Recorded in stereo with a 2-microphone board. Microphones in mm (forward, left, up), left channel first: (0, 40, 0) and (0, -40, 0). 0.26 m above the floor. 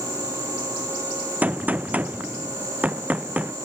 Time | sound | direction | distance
1.4 | a gunshot | 20° right (ahead or behind) | ?